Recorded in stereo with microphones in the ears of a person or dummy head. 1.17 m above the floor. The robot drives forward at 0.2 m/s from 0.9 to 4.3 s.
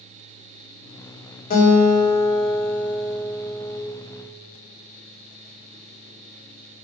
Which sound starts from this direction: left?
A guitar, at 1.5 s.